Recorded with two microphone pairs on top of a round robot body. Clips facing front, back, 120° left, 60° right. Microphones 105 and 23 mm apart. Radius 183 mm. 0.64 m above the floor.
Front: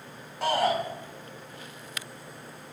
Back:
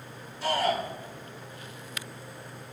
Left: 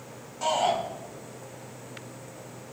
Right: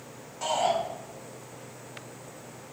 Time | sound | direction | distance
0.4 | a shout | 30° left | 6 m